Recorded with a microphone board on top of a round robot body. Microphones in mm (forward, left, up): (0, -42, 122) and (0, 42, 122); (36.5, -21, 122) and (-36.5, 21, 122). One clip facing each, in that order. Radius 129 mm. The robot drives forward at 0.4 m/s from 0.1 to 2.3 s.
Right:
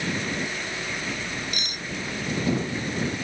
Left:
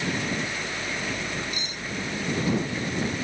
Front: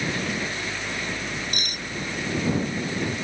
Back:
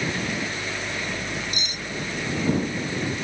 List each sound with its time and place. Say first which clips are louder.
1.5 s cutlery clinking: even, even; 65° right